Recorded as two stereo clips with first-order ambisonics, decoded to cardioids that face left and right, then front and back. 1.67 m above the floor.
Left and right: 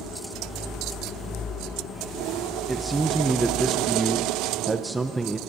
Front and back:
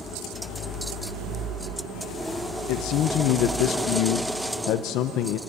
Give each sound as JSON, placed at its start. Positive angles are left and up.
{"t": 2.7, "sound": "a man speaking", "azimuth_deg": -10, "distance_m": 0.8}